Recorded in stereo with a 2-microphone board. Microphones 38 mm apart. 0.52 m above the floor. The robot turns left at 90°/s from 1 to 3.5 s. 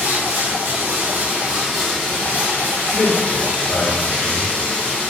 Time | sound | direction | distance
0.0 | running water | 105° right | 0.7 m
2.9 | a man speaking | 30° left (ahead or behind) | 0.8 m